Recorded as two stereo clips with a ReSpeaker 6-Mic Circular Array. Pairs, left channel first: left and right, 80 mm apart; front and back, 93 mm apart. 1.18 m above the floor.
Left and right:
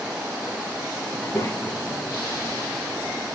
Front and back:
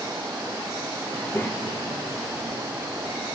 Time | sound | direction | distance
1.1 | a child speaking | 75° left | 0.6 m